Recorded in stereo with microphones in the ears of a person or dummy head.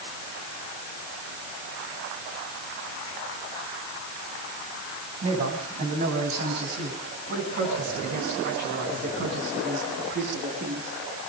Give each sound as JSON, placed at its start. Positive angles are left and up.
{"t": 5.2, "sound": "a man speaking", "side_deg": -40, "distance_m": 9.5}